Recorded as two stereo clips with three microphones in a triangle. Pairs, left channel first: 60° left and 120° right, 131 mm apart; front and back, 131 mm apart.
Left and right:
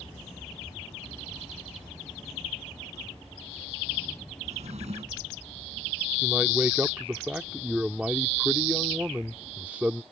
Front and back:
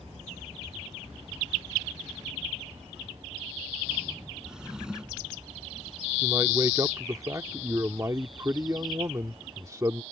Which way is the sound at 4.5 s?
95° right.